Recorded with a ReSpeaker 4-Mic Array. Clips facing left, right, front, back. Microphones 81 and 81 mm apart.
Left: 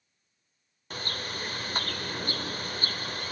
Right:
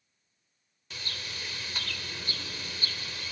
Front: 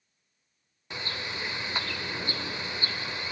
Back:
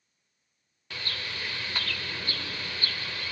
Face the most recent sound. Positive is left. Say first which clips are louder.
# left 6 dB, front 2 dB
turn(degrees=65)